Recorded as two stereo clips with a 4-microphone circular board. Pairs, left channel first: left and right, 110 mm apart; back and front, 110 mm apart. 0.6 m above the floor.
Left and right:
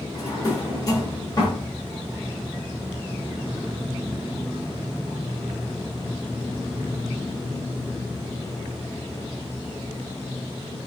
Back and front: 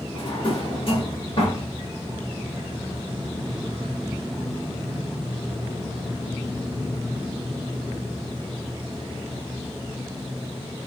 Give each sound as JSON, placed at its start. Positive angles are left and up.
{"t": 0.1, "sound": "a drawer", "azimuth_deg": 145, "distance_m": 1.1}